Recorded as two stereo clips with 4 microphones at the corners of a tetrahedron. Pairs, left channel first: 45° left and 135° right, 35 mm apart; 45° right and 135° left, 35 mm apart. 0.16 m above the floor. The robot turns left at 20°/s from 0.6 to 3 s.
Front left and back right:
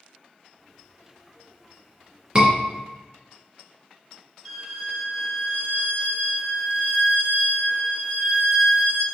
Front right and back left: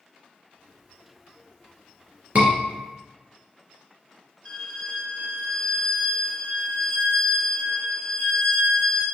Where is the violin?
45° right, 1.2 m.